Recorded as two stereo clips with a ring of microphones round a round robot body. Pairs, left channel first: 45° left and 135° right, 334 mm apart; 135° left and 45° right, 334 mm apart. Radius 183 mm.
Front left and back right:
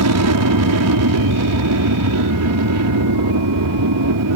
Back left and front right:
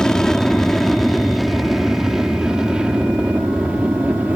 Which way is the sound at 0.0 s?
140° right.